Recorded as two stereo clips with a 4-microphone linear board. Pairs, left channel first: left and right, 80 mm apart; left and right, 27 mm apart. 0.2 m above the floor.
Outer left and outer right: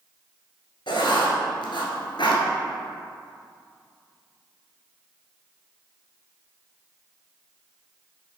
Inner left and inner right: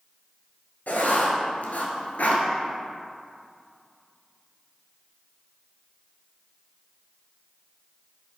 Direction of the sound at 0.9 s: 75° left (ahead or behind).